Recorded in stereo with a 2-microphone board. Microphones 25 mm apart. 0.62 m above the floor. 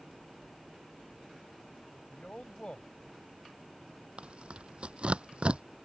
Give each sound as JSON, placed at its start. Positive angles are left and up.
{"t": 2.1, "sound": "a man speaking", "side_deg": 55}
{"t": 4.2, "sound": "tearing paper", "side_deg": -55}